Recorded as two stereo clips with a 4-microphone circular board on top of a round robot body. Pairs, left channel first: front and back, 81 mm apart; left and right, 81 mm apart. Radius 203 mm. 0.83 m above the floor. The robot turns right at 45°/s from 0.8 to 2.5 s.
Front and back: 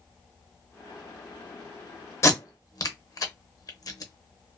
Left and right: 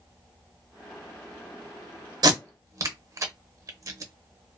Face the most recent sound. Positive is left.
turn(degrees=-40)